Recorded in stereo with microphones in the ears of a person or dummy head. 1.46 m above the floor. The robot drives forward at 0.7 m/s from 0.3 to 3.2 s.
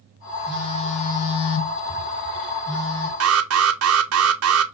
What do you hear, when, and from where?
0.5 s a phone buzzing: 25° left (ahead or behind), 1.0 m; by 3.1 s 20° left (ahead or behind), 1.1 m
3.2 s an alarm: 65° right (ahead or behind), 0.5 m